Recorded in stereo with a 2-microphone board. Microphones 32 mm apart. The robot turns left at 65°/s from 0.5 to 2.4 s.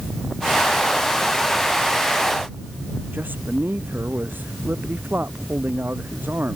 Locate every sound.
3.1 s a man speaking: 80° right